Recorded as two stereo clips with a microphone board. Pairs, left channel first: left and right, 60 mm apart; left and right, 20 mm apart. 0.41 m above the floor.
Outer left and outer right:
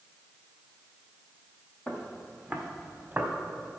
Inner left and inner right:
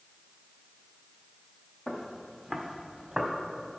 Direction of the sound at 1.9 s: 15° left (ahead or behind).